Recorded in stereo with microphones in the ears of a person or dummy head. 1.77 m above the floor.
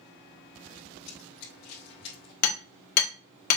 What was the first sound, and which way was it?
Running footsteps, 45° left (ahead or behind).